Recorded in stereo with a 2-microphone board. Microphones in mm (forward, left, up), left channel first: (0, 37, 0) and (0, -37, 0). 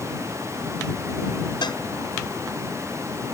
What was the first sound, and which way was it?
A cowbell, 85° left.